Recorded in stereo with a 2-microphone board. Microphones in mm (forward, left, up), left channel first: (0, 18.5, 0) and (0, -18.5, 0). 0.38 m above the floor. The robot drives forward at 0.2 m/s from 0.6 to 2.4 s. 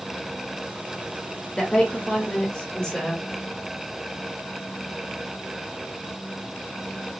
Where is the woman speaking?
25° left (ahead or behind), 1.1 m.